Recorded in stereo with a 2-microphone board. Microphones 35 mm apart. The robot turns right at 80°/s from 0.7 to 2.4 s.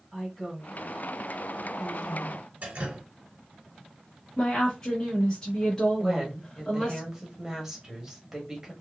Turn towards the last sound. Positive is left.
turn(degrees=-10)  # may be behind; listen again after turning